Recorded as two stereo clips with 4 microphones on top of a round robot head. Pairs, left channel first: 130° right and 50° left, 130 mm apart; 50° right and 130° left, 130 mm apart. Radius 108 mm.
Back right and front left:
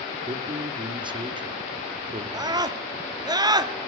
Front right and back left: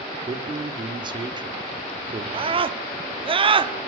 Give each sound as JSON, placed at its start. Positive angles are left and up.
{"t": 0.3, "sound": "a man speaking", "azimuth_deg": 90, "distance_m": 1.8}
{"t": 2.3, "sound": "a scream", "azimuth_deg": 100, "distance_m": 1.6}